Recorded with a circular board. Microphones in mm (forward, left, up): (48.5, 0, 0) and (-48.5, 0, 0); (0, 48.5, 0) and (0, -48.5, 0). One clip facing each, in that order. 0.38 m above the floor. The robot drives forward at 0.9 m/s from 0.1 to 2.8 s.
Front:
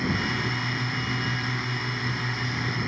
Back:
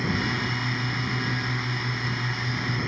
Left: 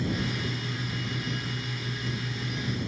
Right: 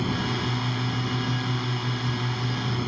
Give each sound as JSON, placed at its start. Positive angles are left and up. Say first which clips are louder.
{"t": 0.0, "sound": "a drone", "louder": "even, right 3 dB", "azimuth_deg": -90}